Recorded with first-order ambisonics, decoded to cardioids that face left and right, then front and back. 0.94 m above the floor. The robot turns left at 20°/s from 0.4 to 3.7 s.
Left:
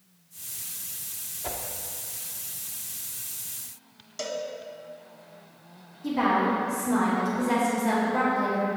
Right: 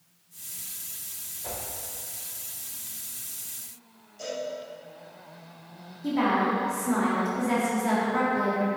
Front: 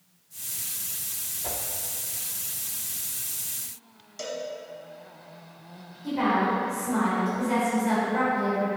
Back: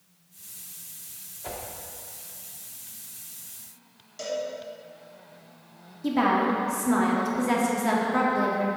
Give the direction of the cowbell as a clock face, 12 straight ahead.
9 o'clock.